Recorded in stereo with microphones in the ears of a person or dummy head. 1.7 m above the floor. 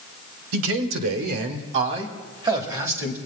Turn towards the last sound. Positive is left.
turn(degrees=-10)  # may be behind; listen again after turning